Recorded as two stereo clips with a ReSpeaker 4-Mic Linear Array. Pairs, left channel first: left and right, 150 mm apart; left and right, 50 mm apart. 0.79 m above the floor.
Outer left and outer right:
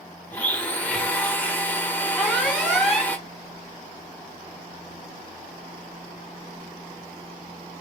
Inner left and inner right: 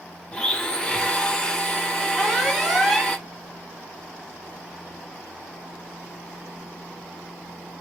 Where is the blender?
10° left (ahead or behind), 0.6 m.